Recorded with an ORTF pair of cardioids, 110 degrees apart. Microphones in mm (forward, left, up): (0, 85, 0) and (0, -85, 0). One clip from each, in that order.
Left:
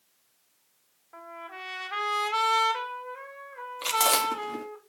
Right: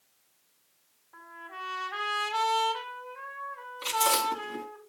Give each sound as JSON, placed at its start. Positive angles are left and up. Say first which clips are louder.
{"t": 1.1, "sound": "a trumpet", "louder": "left 1 dB", "azimuth_deg": 40, "distance_m": 5.5}
{"t": 3.8, "sound": "chewing", "louder": "left 2 dB", "azimuth_deg": 40, "distance_m": 3.0}